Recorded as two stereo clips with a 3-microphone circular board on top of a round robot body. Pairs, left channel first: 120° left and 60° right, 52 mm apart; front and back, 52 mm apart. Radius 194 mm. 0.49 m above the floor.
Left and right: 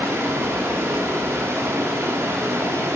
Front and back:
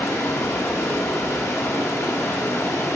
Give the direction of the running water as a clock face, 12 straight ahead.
1 o'clock.